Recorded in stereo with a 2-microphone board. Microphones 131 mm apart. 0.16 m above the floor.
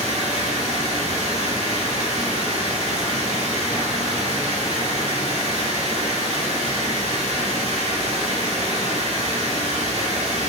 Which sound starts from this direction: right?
Running water, at 0.0 s.